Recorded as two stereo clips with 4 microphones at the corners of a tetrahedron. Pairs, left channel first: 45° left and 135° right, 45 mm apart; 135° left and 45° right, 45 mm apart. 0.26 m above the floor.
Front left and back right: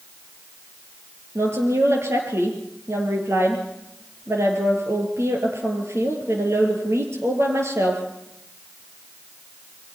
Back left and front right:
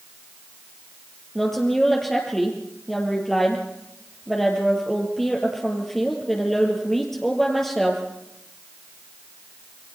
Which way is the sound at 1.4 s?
140° right.